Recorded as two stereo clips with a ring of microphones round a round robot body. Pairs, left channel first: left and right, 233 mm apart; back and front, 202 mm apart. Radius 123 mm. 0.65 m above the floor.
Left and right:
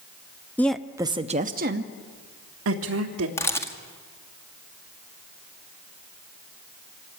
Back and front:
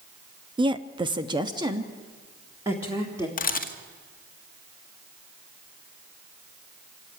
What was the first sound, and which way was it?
A woman speaking, 20° left.